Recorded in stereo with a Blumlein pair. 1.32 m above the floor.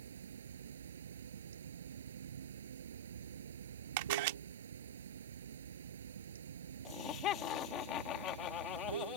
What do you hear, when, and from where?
0.0 s running water: 65° right
4.0 s a camera shutter: 50° right
6.8 s laughter: 35° left